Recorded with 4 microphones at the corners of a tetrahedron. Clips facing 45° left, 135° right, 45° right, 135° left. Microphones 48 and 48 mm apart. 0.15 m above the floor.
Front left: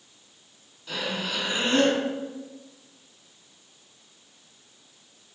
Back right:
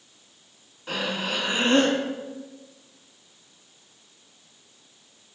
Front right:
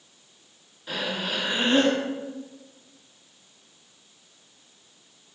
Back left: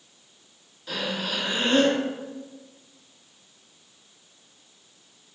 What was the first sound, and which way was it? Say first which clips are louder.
Breathing: back right 2 dB, even; 110° right.